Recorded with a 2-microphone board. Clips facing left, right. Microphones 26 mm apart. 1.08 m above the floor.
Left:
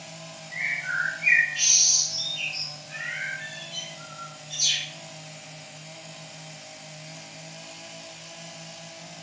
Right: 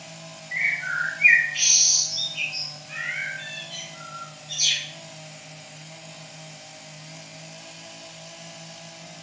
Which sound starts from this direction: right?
A bird, at 0.5 s.